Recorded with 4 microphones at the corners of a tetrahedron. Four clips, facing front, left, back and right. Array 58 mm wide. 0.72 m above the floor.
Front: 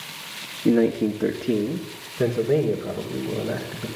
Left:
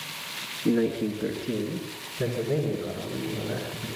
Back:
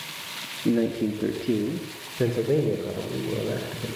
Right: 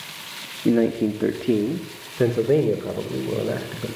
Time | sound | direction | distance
0.7 | a man speaking | 50° right | 1.5 m